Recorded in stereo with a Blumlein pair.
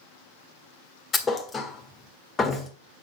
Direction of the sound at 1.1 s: 15° left.